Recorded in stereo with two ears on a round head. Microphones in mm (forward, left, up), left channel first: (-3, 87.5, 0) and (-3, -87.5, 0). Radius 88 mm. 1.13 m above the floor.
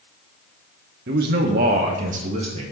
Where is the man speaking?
60° right (ahead or behind), 1.1 m; by 2.6 s 40° right (ahead or behind), 2.0 m.